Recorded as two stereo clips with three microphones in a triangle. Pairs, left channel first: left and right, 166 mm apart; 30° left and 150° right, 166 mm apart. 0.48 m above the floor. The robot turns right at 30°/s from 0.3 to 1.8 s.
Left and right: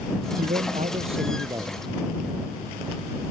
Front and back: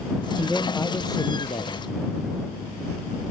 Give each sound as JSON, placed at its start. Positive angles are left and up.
{"t": 0.4, "sound": "a man speaking", "azimuth_deg": -60}